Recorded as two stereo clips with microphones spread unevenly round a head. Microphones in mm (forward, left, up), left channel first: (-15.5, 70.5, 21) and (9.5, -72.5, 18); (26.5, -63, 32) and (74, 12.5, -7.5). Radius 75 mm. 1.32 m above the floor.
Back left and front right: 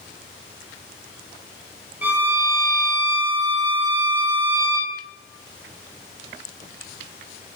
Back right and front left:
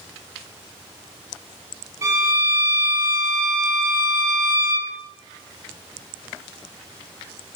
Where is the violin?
Straight ahead, 3 m.